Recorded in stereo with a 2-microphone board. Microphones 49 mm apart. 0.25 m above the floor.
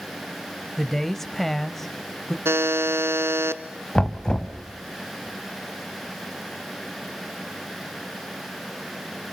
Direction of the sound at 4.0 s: 20° left (ahead or behind).